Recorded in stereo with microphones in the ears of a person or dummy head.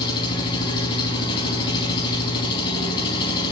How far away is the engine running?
About 4.5 m.